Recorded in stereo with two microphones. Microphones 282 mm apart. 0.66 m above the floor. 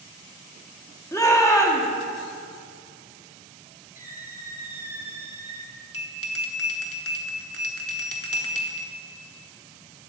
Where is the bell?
55° left (ahead or behind), 1.1 m.